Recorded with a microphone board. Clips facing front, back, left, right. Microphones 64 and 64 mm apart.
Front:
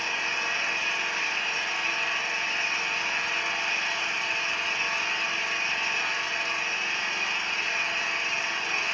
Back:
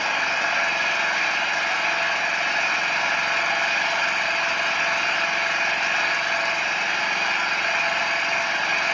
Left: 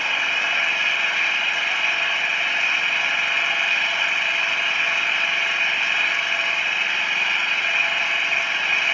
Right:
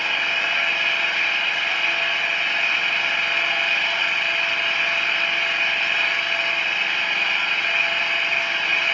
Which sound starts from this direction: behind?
An engine running, at 0.0 s.